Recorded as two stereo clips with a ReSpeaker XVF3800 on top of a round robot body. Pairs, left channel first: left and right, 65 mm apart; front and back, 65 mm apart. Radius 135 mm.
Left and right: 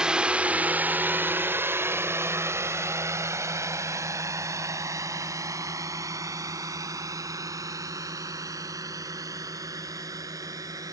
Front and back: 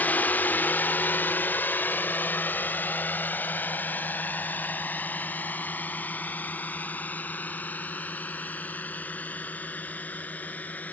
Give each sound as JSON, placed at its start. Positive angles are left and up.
{"t": 0.0, "sound": "a drone", "azimuth_deg": -25}